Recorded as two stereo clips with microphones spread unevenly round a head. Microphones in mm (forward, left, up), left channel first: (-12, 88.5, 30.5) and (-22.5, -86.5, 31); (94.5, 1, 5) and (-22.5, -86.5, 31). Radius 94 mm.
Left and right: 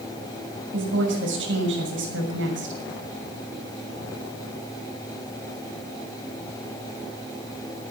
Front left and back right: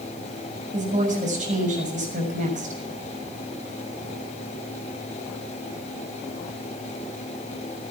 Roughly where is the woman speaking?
Right.